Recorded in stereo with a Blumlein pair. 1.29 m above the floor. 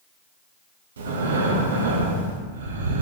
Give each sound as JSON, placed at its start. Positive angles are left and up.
{"t": 1.0, "sound": "breathing", "azimuth_deg": -65, "distance_m": 1.0}